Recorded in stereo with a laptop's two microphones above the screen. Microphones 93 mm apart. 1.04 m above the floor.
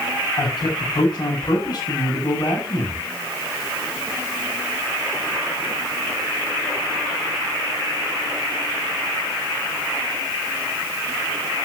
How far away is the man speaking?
About 8.5 m.